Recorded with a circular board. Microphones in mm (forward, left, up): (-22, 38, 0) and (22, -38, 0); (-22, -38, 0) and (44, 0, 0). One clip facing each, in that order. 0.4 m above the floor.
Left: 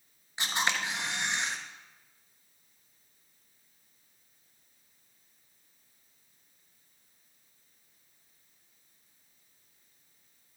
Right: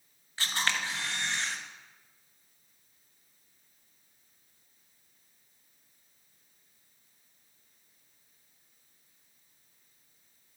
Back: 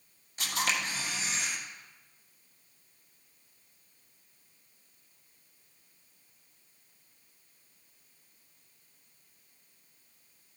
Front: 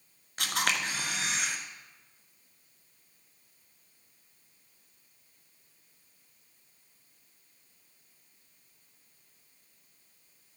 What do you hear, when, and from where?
0.4 s a camera shutter: 50° left, 1.2 m